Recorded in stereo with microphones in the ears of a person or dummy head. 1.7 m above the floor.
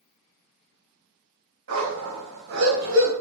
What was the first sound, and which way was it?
A dog barking, 80° right.